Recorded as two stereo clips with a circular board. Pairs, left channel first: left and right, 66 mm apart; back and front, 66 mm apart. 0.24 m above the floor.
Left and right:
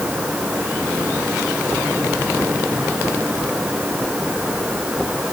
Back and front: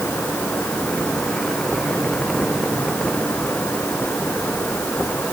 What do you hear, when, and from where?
Only background noise.